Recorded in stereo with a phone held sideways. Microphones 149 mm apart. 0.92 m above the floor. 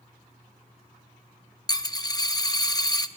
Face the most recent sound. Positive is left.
turn(degrees=25)  # may be behind; listen again after turning